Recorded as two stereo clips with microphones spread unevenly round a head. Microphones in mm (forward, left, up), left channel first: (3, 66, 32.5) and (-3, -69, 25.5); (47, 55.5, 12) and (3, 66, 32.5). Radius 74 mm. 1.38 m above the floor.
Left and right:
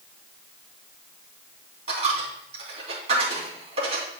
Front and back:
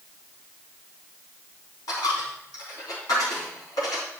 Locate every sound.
1.9 s a dropped coin: 45° right, 3.5 m